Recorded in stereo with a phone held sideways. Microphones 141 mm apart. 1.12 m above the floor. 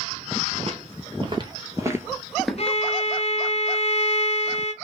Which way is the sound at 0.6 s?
45° right (ahead or behind).